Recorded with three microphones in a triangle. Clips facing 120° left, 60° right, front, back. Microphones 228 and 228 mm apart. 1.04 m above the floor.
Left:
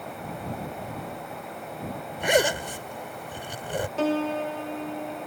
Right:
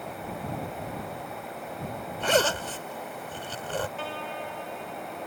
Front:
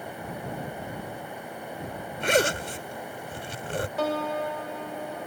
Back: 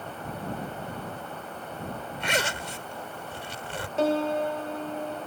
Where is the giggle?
No giggle in this recording.